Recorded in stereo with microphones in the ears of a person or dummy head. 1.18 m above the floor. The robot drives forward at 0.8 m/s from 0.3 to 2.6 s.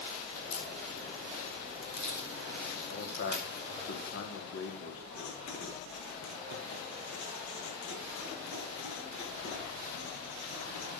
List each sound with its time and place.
0.3 s a crack: 80° left, 4 m; by 3.8 s 60° left (ahead or behind), 4.5 m
2.9 s a man speaking: 65° left (ahead or behind), 3 m
5.1 s writing: 75° left (ahead or behind), 6 m